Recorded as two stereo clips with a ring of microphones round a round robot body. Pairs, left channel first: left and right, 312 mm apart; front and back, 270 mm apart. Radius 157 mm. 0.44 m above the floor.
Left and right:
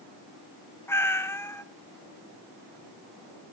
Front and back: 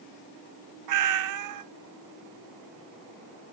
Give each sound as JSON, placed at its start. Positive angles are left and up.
{"t": 0.9, "sound": "a cat meowing", "azimuth_deg": 170, "distance_m": 0.6}